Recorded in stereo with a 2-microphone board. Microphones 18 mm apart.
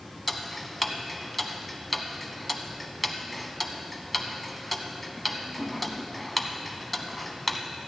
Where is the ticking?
Centre (ahead or behind), 0.7 m.